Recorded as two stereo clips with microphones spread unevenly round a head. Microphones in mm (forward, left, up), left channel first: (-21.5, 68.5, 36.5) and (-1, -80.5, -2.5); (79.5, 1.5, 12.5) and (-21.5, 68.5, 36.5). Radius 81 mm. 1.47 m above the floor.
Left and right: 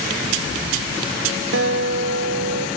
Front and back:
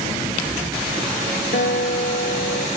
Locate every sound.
1.5 s a guitar: 75° right, 2 m